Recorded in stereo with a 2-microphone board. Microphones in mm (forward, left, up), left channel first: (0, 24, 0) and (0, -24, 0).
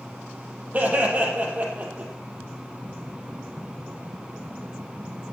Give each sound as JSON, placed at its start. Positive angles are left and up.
{"t": 0.7, "sound": "laughter", "side_deg": -30, "distance_m": 3.5}